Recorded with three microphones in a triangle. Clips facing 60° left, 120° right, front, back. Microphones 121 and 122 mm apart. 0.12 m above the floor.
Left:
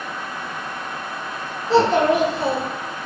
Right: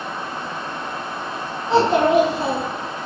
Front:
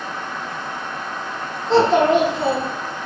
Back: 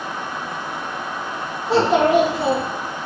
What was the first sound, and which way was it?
A child speaking, 115° right.